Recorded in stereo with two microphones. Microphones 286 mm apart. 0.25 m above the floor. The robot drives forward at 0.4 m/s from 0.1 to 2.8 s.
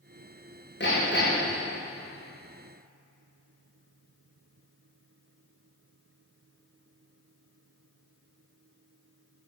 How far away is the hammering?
About 6.5 m.